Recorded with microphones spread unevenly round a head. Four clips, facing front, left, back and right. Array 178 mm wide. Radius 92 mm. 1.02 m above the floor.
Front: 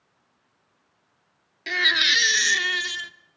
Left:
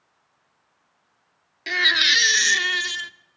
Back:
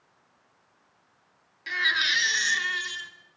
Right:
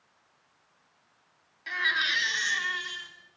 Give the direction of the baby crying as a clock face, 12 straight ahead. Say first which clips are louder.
Left 6 dB, front 3 dB; 10 o'clock.